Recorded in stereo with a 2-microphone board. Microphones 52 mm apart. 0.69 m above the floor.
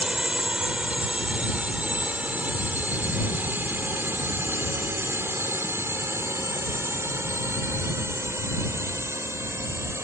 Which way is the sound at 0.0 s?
20° right (ahead or behind).